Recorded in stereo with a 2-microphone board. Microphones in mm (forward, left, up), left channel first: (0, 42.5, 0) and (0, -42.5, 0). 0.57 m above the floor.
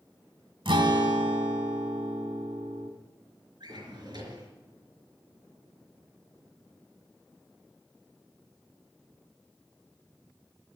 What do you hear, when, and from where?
0.7 s a guitar: 90° right, 1.8 m
3.6 s a drawer: 60° right (ahead or behind), 5 m